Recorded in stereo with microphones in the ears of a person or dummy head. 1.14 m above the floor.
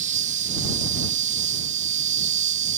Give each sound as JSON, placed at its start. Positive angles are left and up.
{"t": 0.0, "sound": "an insect", "side_deg": -40}